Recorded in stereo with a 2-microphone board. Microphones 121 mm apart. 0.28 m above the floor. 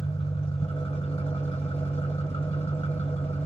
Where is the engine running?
50° left (ahead or behind), 2 m.